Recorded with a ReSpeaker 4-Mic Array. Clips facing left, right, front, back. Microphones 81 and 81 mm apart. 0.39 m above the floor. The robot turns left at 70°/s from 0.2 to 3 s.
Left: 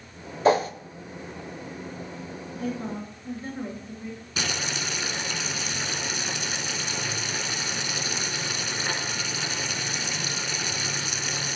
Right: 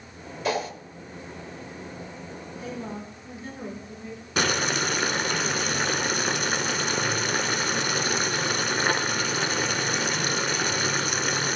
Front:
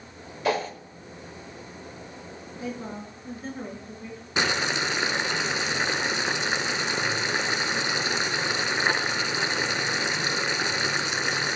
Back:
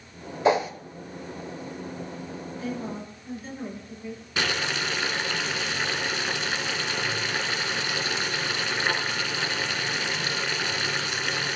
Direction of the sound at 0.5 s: 125° left.